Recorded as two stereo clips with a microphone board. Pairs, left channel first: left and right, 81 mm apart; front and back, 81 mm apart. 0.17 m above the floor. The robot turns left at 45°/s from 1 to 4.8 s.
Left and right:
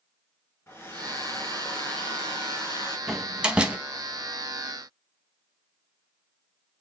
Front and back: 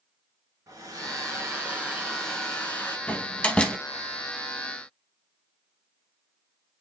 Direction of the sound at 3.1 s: 15° right.